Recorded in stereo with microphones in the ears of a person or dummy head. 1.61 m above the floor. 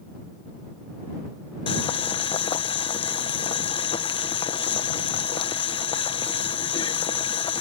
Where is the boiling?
25° left (ahead or behind).